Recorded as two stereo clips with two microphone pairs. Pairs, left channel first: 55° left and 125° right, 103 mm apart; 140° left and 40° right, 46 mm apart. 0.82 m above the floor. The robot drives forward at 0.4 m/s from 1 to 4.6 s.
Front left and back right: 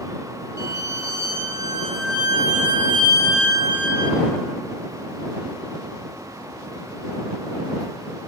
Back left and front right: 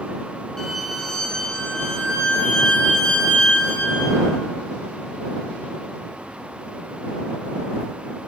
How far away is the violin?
About 1.0 m.